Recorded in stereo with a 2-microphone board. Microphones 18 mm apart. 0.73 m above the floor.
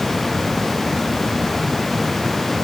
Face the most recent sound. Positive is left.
No sound to turn to.